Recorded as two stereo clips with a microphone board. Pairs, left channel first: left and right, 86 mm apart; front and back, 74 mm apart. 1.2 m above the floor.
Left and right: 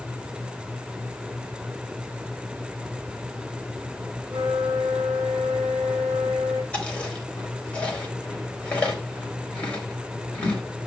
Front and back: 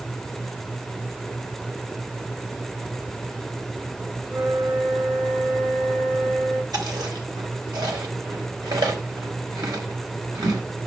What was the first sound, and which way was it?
A flute, 130° right.